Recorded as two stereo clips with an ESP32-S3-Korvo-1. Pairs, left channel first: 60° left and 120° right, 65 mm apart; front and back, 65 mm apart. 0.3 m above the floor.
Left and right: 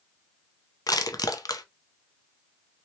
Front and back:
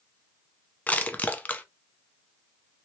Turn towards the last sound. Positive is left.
turn(degrees=65)